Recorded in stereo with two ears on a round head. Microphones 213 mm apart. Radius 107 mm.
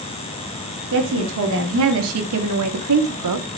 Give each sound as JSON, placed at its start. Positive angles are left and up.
{"t": 0.9, "sound": "a woman speaking", "side_deg": -55, "distance_m": 3.0}